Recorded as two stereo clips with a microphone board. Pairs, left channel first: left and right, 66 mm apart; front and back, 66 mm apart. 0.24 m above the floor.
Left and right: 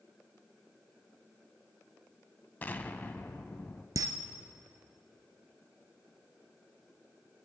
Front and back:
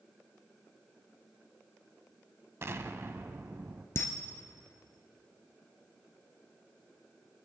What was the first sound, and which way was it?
An explosion, 145° left.